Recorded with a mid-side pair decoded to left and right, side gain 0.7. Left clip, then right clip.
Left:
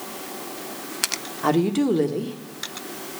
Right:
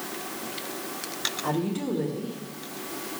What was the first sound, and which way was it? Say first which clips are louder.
A woman speaking: left 13 dB; 40° left.